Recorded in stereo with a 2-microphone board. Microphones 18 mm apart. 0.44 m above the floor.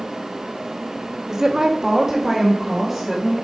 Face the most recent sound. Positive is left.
turn(degrees=-5)  # may be behind; listen again after turning